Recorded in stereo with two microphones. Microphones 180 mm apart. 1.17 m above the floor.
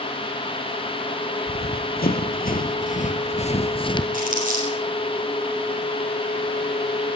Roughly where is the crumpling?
Right.